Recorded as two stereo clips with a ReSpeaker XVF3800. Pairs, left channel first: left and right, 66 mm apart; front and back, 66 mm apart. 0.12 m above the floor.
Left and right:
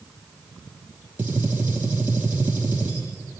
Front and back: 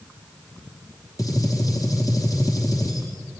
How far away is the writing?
I don't hear writing.